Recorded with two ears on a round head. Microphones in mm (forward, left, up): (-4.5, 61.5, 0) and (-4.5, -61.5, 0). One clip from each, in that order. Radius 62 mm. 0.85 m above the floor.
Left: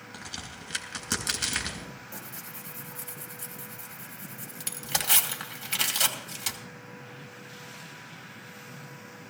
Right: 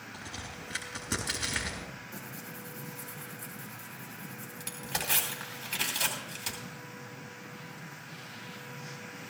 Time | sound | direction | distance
0.1 | a crack | 85° left | 3.5 m
2.1 | tearing paper | 45° left (ahead or behind) | 2.5 m